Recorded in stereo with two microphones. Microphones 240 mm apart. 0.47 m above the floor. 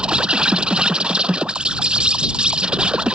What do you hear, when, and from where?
0.0 s an insect: 5° right (ahead or behind)